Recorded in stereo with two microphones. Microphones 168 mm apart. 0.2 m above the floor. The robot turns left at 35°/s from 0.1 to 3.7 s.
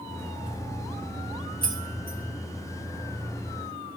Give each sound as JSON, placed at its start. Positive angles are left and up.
{"t": 1.6, "sound": "keys jangling", "side_deg": 60, "distance_m": 1.7}